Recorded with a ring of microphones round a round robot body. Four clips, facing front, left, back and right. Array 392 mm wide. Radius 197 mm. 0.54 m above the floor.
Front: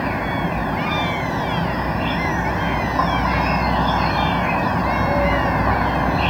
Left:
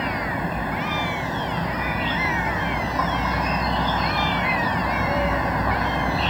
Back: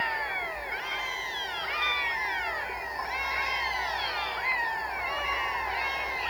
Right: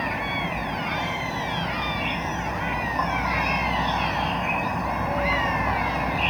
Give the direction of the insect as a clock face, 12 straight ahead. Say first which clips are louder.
Left 2 dB, front 10 dB; 12 o'clock.